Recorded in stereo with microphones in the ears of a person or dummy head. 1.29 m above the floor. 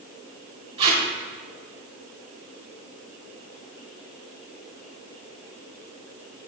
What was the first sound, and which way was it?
Tape being pulled, 40° right (ahead or behind).